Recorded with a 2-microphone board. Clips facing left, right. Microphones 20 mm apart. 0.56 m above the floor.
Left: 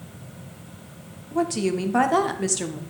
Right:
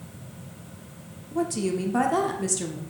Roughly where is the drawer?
No drawer in this recording.